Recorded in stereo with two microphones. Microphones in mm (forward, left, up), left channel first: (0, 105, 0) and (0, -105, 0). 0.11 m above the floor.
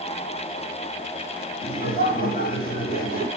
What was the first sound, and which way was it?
Laughter, 45° left (ahead or behind).